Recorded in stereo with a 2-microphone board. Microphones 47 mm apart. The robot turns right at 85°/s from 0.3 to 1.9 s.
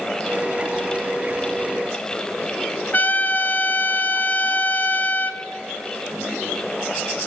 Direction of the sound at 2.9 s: 35° left (ahead or behind).